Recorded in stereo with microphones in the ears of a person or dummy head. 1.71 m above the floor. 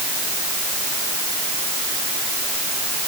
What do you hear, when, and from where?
Only background noise.